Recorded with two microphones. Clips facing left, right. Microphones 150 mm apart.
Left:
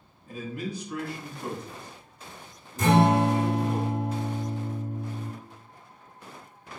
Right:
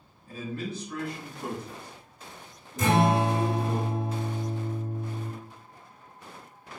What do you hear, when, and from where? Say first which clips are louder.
0.3 s a man speaking: even; 20° left (ahead or behind), 1.1 m; by 3.8 s 30° right (ahead or behind), 1.9 m
2.8 s a guitar: left 2 dB; 35° left (ahead or behind), 1.9 m